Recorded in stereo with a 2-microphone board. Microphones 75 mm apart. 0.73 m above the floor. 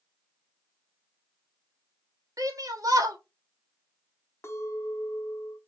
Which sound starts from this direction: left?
A clink, at 4.4 s.